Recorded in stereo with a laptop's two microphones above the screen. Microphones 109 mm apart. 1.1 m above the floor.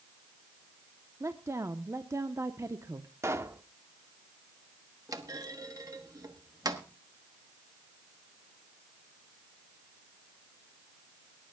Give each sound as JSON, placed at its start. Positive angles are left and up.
{"t": 1.2, "sound": "a woman speaking", "side_deg": -30, "distance_m": 0.8}
{"t": 3.2, "sound": "a pop", "side_deg": -30, "distance_m": 0.8}
{"t": 5.1, "sound": "a clunk", "side_deg": -40, "distance_m": 1.1}